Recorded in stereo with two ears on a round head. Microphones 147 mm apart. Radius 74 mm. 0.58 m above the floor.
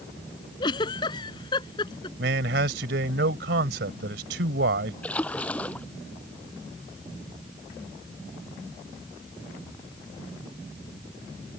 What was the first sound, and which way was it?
A giggle, 25° left (ahead or behind).